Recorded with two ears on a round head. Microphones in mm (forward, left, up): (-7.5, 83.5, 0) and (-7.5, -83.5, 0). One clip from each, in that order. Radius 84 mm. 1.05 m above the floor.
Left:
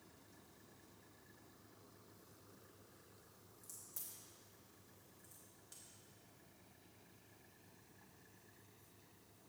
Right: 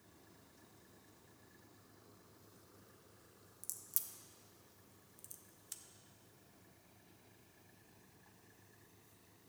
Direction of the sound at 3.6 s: 50° right (ahead or behind).